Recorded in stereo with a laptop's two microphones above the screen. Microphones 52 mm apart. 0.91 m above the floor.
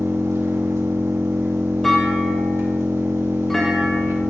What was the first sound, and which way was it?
An engine running, 80° right.